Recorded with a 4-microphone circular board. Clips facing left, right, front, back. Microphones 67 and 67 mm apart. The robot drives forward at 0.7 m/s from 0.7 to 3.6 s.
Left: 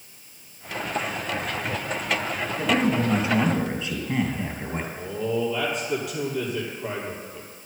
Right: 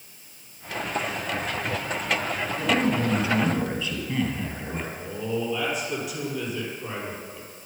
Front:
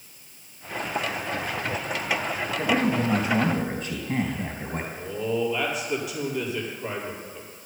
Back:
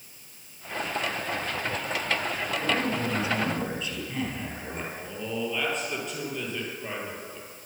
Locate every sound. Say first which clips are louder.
2.6 s a man speaking: left 1 dB, front 5 dB; 40° left, 4 m; by 4.9 s 45° left, 3.5 m
5.0 s a man speaking: left 4 dB, front 8 dB; 80° left, 4 m